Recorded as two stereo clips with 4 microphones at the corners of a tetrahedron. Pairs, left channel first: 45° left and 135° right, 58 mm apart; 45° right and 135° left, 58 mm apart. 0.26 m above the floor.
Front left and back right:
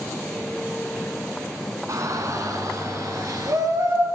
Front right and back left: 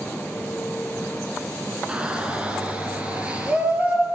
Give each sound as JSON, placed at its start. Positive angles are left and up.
{"t": 1.9, "sound": "a shout", "azimuth_deg": -155, "distance_m": 2.5}